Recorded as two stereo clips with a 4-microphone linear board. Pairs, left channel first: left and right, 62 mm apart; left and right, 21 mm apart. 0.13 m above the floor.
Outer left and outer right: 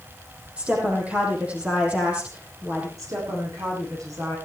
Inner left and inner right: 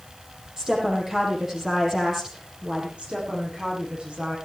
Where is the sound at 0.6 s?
20° right (ahead or behind), 5.5 m.